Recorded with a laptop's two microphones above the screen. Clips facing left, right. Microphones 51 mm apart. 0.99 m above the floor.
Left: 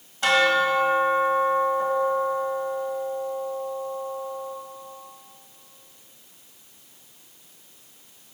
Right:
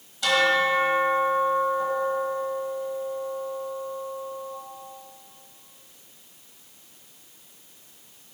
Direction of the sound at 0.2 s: 40° left (ahead or behind).